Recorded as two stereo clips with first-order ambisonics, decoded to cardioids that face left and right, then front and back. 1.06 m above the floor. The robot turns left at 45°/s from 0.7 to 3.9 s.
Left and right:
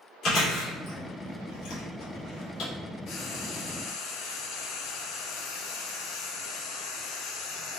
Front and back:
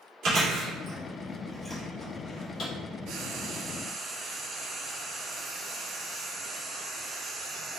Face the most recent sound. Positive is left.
turn(degrees=100)